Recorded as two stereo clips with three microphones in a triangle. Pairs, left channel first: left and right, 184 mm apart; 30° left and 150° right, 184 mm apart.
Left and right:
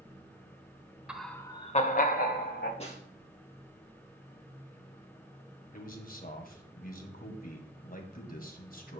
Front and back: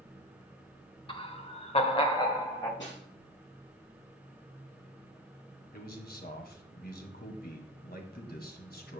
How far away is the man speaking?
About 2.0 m.